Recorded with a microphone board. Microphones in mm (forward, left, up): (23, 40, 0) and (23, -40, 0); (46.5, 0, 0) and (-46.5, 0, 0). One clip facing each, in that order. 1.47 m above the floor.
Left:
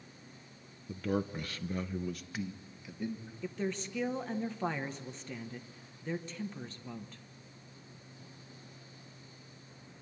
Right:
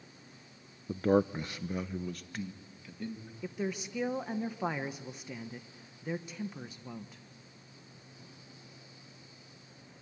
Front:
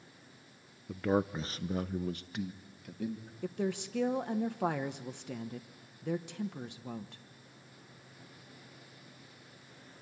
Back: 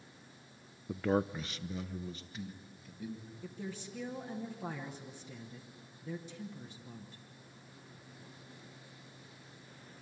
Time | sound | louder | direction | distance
0.9 | a man speaking | right 7 dB, front 1 dB | 110° right | 0.5 m
3.4 | a woman speaking | even, front 10 dB | 10° right | 1.0 m